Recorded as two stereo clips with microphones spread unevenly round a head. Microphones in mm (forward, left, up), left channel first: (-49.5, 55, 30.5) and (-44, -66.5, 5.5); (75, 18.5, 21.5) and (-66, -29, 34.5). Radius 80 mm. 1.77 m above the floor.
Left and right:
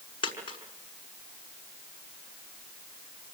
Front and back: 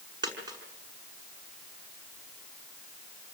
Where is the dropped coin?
135° left, 6 m.